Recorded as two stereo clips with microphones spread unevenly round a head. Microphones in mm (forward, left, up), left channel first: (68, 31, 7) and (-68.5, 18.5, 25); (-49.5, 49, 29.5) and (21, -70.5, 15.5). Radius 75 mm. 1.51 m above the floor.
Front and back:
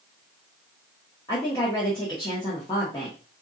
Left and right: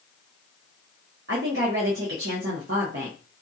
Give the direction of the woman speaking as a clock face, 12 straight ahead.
2 o'clock.